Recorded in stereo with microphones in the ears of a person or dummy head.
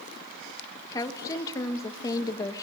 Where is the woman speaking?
20° left (ahead or behind), 1.5 m.